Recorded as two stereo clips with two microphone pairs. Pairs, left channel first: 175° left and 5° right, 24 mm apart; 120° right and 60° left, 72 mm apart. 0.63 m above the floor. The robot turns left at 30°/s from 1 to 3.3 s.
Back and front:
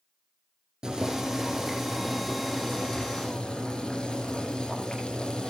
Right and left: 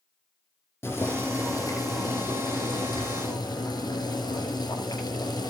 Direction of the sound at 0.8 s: 65° right.